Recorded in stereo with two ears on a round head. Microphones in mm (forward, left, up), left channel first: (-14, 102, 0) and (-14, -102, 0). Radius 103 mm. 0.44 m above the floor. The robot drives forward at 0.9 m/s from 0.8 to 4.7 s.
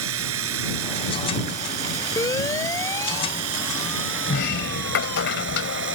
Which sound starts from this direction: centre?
A siren, at 2.2 s.